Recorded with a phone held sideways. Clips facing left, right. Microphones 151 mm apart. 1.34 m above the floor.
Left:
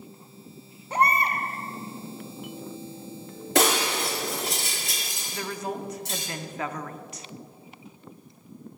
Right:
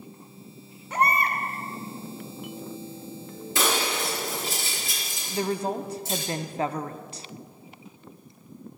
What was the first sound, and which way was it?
A baby crying, 30° left (ahead or behind).